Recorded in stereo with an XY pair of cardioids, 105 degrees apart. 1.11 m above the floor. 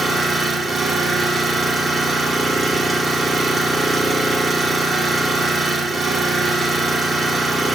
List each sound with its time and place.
0.0 s an engine running: 30° right, 2 m